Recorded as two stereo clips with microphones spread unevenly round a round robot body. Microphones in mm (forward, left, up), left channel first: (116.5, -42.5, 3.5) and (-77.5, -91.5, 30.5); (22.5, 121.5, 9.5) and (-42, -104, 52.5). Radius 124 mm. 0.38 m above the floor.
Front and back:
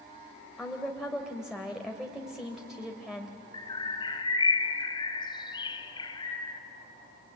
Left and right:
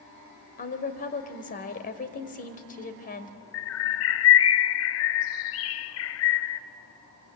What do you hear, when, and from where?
0.6 s a woman speaking: 100° left, 1.9 m
3.5 s a bird: 85° left, 0.7 m